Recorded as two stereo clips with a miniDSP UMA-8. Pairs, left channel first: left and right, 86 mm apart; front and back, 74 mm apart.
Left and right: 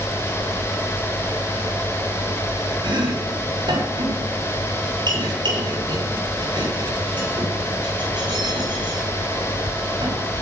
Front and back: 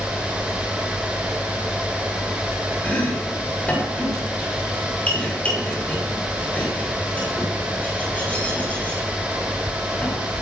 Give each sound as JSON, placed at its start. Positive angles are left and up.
{"t": 2.8, "sound": "chopping", "azimuth_deg": -70, "distance_m": 7.5}